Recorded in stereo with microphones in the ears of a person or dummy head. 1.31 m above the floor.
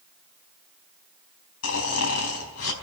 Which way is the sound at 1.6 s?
80° left.